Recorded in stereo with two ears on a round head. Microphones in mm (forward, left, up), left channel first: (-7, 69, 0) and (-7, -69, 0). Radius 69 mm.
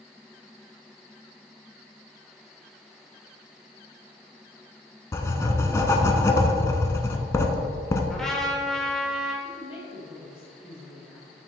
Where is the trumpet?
5° left (ahead or behind), 1.0 m.